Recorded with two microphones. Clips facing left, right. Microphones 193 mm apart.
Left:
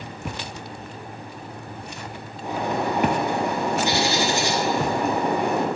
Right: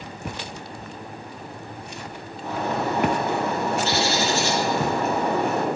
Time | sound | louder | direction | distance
2.4 | a bird | left 1 dB | 15° left (ahead or behind) | 0.8 m